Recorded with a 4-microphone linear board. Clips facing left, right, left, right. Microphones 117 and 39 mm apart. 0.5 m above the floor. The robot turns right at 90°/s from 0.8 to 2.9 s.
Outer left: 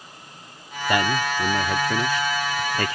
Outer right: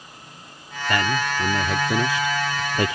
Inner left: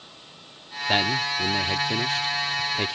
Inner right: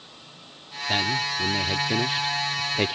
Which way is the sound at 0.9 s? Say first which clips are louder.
Outer left 1 dB, inner left 2 dB; 20° left (ahead or behind).